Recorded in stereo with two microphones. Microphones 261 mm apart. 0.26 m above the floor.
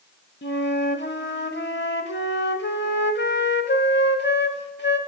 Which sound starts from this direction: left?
A flute, at 0.4 s.